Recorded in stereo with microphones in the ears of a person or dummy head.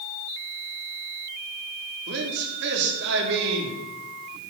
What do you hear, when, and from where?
2.1 s a man speaking: 60° right (ahead or behind), 3.5 m